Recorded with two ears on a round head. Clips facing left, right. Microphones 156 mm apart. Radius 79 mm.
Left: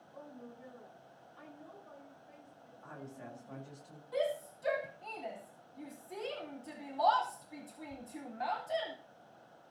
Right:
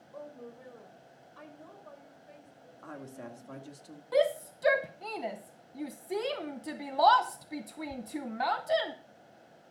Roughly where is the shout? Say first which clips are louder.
Right 7 dB; right.